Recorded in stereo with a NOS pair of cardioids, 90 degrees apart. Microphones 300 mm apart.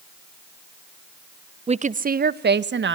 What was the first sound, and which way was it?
A woman speaking, 20° right.